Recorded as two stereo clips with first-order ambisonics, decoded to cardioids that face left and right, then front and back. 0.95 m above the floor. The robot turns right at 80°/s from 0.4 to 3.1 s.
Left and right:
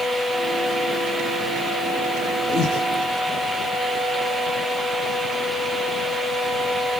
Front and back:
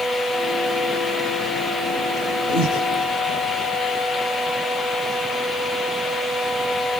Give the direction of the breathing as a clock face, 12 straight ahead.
11 o'clock.